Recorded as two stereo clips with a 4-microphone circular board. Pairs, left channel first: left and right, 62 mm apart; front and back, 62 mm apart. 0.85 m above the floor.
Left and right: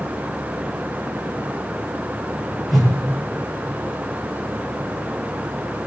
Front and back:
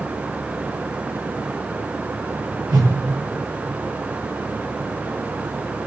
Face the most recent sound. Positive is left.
turn(degrees=180)